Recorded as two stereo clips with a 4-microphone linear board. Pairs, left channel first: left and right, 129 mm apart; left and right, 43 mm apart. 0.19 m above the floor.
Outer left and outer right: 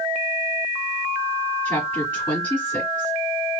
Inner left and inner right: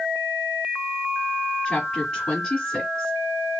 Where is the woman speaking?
20° left (ahead or behind), 1.4 m.